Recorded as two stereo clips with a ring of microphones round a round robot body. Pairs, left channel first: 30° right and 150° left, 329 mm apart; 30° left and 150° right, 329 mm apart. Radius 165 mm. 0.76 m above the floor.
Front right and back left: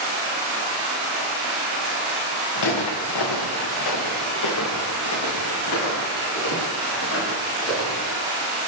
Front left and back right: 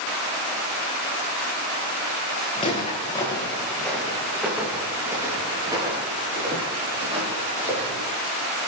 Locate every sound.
2.5 s footsteps: 40° right, 5 m; by 8.1 s 85° right, 11 m